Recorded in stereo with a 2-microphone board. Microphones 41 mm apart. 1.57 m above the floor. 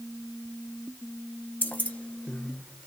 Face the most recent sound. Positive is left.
turn(degrees=-25)  # may be behind; listen again after turning